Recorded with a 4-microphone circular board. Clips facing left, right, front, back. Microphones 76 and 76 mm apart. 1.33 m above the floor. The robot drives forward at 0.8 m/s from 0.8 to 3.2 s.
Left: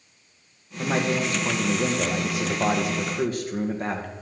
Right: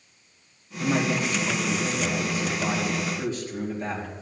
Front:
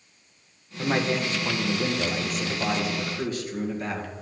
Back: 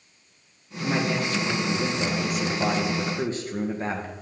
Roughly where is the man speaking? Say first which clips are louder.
Even, even; ahead left.